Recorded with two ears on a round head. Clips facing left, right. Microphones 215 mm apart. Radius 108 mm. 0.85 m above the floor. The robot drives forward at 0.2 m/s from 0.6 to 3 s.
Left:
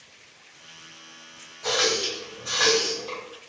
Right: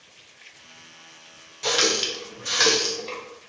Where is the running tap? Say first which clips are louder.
Right 1 dB; 50° right (ahead or behind), 0.5 m; by 3.2 s 30° right (ahead or behind), 0.7 m.